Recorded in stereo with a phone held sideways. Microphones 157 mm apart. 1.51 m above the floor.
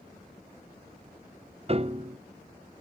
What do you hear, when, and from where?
1.7 s a piano: 40° right (ahead or behind), 0.6 m